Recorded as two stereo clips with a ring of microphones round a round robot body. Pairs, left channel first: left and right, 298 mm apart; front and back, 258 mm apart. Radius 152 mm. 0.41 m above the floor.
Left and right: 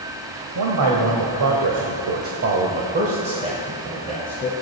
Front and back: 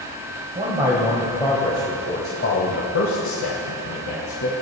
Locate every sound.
0.6 s a man speaking: 110° right, 1.9 m; by 4.5 s 5° right, 2.5 m